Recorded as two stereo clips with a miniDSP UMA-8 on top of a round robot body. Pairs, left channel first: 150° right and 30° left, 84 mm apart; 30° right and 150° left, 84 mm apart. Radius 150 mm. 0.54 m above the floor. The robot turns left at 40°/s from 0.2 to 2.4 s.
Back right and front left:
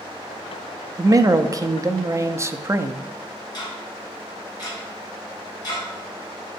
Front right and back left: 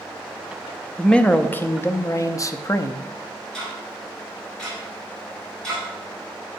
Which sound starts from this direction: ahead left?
A man speaking, at 1.0 s.